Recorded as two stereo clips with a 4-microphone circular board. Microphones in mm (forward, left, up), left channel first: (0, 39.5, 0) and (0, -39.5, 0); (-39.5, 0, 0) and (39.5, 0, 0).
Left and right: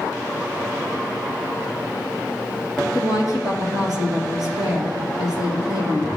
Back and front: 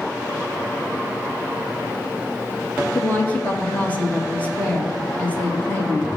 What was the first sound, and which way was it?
A woman speaking, 115° right.